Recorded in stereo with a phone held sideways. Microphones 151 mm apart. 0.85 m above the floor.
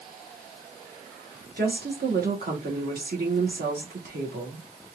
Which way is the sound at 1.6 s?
75° right (ahead or behind).